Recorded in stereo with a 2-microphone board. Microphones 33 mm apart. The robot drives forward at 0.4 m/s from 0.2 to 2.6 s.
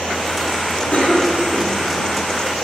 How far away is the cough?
About 3.5 m.